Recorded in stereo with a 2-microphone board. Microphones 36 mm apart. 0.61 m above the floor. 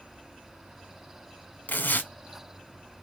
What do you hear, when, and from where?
1.7 s tearing paper: 60° left (ahead or behind), 0.9 m